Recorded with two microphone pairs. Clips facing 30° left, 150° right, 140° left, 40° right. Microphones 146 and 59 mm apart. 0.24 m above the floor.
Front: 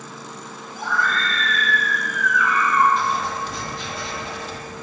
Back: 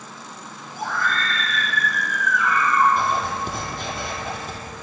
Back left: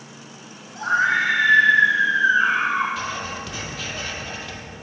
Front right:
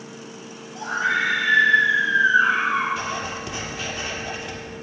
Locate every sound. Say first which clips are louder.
0.7 s a scream: front 1 dB, back left 3 dB; straight behind, 3 m; by 2.9 s 155° left, 5.5 m
3.0 s writing: back 1 dB, front right 1 dB; 110° right, 2 m